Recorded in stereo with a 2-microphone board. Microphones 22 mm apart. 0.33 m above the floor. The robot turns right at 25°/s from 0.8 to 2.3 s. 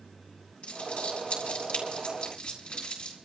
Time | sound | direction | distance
0.6 | crumpling | 70° left (ahead or behind) | 4 m